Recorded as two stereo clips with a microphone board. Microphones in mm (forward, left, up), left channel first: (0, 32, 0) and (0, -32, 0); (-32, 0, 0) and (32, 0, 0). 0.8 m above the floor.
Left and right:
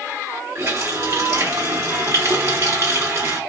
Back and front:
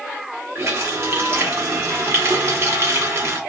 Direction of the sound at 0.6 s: 45° right.